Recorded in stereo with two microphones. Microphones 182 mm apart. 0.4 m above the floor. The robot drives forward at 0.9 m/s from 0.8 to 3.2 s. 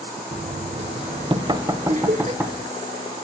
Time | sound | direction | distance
0.3 | knocking | 40° right (ahead or behind) | 0.5 m
1.9 | laughter | 45° right (ahead or behind) | 1.0 m